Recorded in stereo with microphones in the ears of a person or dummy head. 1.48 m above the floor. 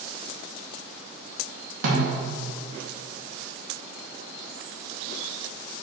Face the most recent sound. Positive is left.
turn(degrees=-85)